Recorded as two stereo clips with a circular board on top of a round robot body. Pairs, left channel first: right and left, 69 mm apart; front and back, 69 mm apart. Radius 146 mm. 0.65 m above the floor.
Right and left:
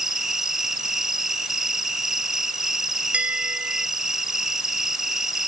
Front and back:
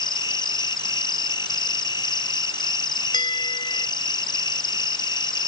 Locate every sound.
0.0 s an insect: 5° left
3.1 s a bell: 15° left